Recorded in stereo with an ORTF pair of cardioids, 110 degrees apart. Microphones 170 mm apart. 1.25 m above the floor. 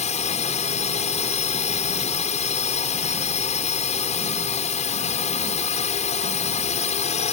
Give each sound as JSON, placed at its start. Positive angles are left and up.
{"t": 0.0, "sound": "a drone", "azimuth_deg": 40}